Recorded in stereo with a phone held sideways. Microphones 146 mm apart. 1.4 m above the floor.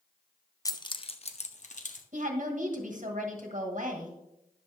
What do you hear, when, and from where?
0.7 s keys jangling: 25° left (ahead or behind), 0.6 m; by 2.0 s 60° left (ahead or behind), 1.1 m
2.1 s a woman speaking: 55° right (ahead or behind), 1.8 m